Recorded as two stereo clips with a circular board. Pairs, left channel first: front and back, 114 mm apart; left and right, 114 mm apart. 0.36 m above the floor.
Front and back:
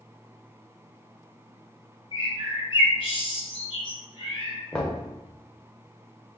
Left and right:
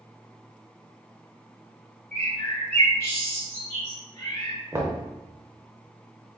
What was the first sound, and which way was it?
A bird, 20° left.